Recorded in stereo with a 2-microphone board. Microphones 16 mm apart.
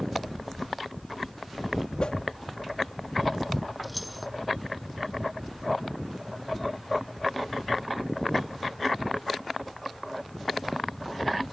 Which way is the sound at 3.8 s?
Centre (ahead or behind).